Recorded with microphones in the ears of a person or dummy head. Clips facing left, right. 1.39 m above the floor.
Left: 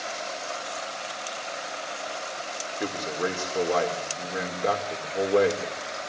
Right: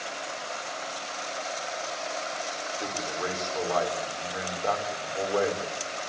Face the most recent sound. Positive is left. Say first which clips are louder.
# left 5 dB
turn(degrees=35)  # may be behind; listen again after turning